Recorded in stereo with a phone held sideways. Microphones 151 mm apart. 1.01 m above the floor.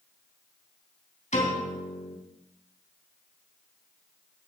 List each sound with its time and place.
1.3 s a piano: 50° left (ahead or behind), 3.5 m